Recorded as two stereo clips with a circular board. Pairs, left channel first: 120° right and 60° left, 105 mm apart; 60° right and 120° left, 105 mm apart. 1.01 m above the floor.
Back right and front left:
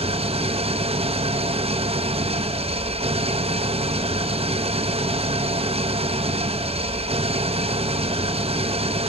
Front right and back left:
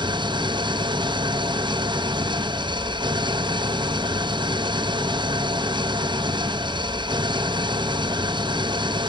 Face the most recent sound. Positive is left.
turn(degrees=80)